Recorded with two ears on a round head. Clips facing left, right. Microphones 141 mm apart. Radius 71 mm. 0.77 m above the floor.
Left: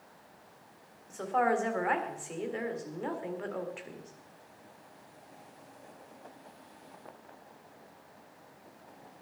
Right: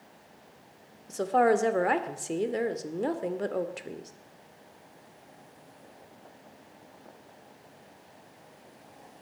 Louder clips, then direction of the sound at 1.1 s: Right 5 dB; 45° right (ahead or behind).